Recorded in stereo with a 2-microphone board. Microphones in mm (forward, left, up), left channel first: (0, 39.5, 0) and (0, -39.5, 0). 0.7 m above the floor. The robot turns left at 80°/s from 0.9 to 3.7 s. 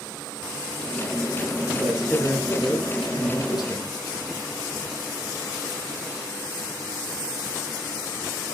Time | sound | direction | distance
1.7 | a man speaking | 145° right | 9 m